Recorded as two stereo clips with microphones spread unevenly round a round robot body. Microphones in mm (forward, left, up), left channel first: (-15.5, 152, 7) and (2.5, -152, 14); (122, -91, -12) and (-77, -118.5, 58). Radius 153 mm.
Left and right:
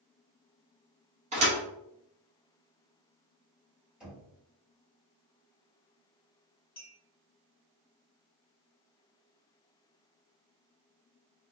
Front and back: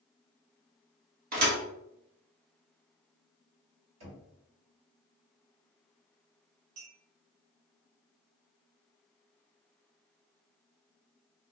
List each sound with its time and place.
1.3 s a thud: 155° right, 1.4 m
4.0 s knocking: 175° right, 1.9 m
6.8 s a clink: 165° left, 1.0 m